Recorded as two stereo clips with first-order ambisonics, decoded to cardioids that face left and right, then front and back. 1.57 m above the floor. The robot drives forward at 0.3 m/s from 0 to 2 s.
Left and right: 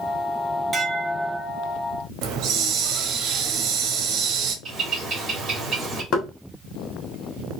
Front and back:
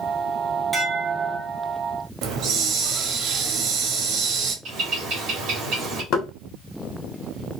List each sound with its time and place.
0.7 s dishes clattering: 130° right, 0.5 m; by 1.5 s 155° right, 0.6 m
2.2 s a hiss: 140° right, 0.8 m
4.7 s a bird: 165° right, 1.5 m
6.1 s knocking: 45° left, 1.2 m